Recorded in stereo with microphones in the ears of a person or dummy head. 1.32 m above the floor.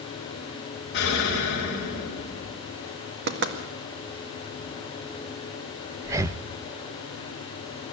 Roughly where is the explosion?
Left.